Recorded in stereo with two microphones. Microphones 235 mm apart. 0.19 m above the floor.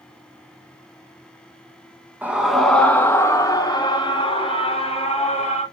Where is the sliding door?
I don't hear a sliding door.